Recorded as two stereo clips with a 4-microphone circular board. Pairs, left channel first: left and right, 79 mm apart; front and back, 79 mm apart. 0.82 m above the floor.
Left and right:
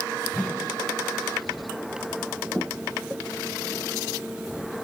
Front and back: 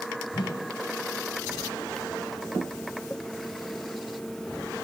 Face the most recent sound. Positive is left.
turn(degrees=15)